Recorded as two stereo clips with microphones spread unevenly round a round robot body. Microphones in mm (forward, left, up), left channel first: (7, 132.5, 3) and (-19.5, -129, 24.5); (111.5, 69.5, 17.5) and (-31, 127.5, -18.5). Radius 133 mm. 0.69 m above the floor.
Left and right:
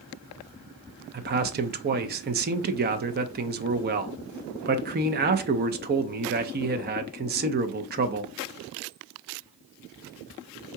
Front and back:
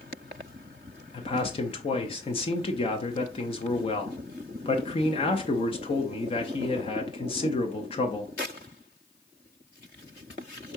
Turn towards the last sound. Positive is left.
turn(degrees=-75)